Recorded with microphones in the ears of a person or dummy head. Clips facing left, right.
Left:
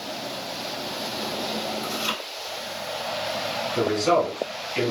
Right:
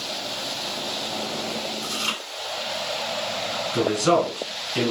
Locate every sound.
1.8 s chewing: 50° right (ahead or behind), 1.9 m
3.7 s a man speaking: 80° right, 1.6 m